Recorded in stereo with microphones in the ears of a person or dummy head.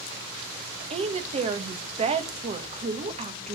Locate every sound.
0.9 s a woman speaking: 30° right (ahead or behind), 1.6 m